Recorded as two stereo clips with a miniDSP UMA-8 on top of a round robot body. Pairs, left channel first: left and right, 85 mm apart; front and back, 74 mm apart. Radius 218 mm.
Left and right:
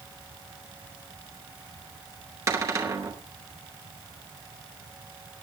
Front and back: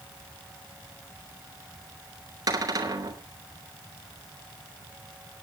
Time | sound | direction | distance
2.5 | a cupboard door | 145° right | 3.5 m